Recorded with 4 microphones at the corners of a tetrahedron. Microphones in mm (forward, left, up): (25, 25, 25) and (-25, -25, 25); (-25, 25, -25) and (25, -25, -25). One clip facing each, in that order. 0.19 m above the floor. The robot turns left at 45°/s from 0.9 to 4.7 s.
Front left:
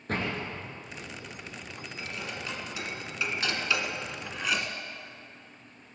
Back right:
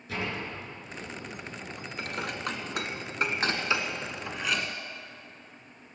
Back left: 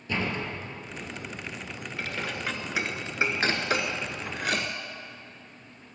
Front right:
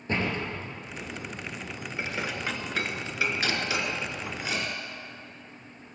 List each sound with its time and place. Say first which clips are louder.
0.1 s a door slam: front left 2 dB, front right 1 dB; 5° left, 3 m
2.0 s dishes clattering: back right 5 dB, front right 1 dB; 110° right, 1.4 m; by 4.7 s 125° left, 1.4 m